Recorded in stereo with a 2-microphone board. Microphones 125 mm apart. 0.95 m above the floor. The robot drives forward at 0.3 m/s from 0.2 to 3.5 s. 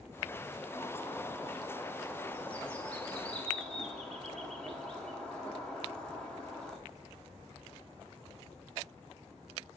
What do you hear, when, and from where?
0.7 s a bird: 20° left (ahead or behind), 0.5 m; by 6.8 s 10° left (ahead or behind), 1.3 m